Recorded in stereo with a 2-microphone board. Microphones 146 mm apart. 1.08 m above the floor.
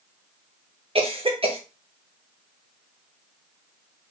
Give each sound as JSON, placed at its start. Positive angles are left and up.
{"t": 0.9, "sound": "a cough", "side_deg": -40, "distance_m": 1.4}